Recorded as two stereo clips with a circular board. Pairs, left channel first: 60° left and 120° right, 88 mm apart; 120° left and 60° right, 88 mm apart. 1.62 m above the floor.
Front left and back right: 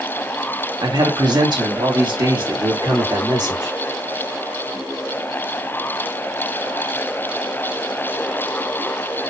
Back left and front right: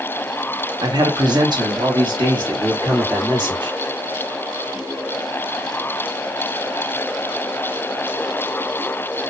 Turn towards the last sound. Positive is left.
turn(degrees=-90)